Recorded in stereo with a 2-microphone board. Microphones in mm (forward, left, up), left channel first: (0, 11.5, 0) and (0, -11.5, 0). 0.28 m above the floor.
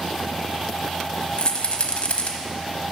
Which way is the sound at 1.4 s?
55° left (ahead or behind).